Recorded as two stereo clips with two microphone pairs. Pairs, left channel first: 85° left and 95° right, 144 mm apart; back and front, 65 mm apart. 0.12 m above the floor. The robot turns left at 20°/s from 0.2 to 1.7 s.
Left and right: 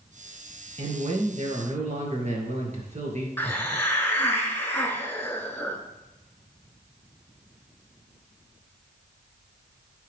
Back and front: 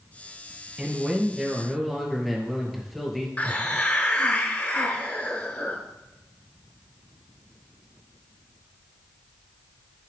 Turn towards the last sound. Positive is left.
turn(degrees=145)